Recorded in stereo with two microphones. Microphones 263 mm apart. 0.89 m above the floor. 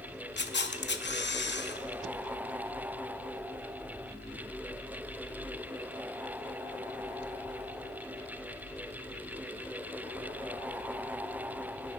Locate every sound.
0.4 s a camera shutter: 40° left (ahead or behind), 0.7 m